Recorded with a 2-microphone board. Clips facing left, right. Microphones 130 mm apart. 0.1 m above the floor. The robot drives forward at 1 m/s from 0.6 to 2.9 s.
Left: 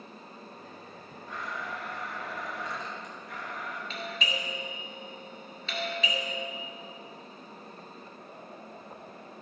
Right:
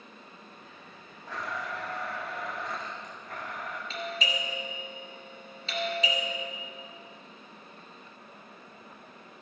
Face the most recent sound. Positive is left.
turn(degrees=-35)  # may be behind; listen again after turning